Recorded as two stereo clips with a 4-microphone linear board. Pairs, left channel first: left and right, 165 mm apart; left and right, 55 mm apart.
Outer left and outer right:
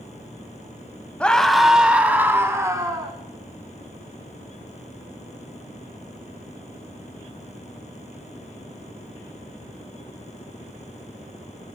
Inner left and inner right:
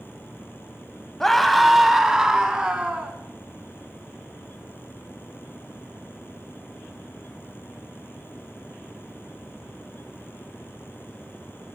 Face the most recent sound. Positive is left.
turn(degrees=-20)  # may be behind; listen again after turning